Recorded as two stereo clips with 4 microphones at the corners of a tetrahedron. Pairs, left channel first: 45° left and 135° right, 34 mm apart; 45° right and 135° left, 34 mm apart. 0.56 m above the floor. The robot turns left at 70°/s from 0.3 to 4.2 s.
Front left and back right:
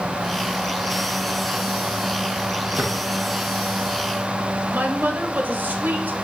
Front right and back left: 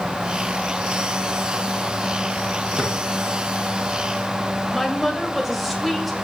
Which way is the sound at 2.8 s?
135° right.